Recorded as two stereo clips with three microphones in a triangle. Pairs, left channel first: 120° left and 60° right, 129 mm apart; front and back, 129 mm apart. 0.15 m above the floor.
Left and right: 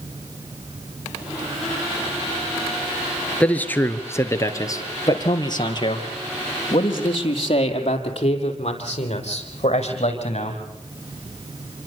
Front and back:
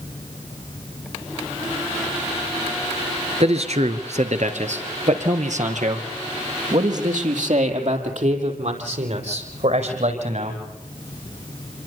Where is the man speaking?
160° right, 2.5 m; by 10.6 s 155° left, 7 m.